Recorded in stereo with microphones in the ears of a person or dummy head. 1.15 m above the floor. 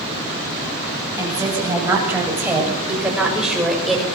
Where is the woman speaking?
15° right (ahead or behind), 9 m; by 4.1 s centre (ahead or behind), 5.5 m.